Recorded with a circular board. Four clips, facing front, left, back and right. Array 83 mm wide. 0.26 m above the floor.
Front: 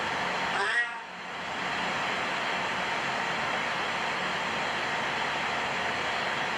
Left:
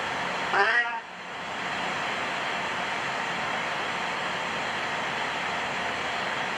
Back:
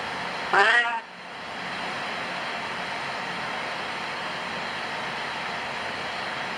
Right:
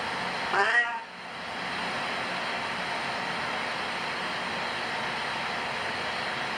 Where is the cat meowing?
175° left, 0.8 m.